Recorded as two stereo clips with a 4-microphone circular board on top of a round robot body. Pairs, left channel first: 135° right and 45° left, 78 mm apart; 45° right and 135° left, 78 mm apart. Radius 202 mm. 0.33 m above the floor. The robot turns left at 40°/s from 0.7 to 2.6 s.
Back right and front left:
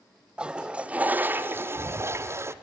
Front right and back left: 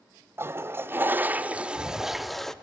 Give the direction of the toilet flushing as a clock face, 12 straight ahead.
8 o'clock.